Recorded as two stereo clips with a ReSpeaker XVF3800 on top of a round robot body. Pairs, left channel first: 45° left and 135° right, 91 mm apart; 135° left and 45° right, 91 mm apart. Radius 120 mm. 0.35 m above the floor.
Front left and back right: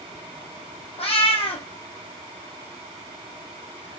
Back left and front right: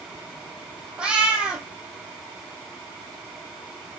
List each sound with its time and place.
1.0 s a cat meowing: 35° left, 1.7 m